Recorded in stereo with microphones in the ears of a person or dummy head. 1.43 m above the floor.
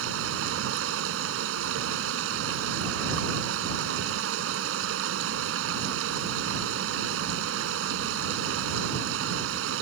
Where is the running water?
75° right (ahead or behind).